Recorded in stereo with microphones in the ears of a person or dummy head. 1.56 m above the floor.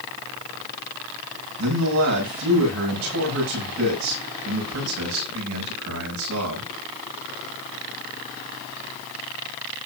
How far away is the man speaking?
About 9 m.